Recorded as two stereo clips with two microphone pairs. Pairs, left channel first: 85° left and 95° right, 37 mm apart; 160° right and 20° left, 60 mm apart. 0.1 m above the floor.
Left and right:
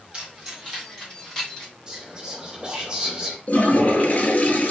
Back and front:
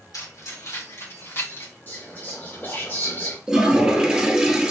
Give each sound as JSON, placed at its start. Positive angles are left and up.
{"t": 0.1, "sound": "keys jangling", "azimuth_deg": -165, "distance_m": 2.5}
{"t": 1.9, "sound": "whispering", "azimuth_deg": -145, "distance_m": 1.6}
{"t": 3.5, "sound": "a toilet flushing", "azimuth_deg": 90, "distance_m": 0.9}